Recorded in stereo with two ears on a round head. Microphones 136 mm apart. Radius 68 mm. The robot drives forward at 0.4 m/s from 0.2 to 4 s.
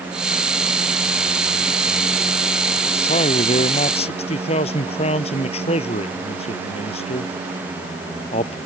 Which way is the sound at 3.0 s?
40° left (ahead or behind).